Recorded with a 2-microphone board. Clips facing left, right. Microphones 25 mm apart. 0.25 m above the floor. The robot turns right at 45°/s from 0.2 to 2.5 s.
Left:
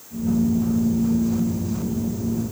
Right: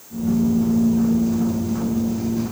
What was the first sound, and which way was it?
Only background noise.